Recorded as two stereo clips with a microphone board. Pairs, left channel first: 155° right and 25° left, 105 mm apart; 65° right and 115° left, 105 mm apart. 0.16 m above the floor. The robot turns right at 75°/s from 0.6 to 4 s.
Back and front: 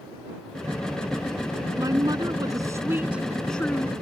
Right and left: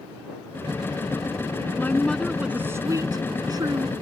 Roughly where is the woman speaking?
Ahead.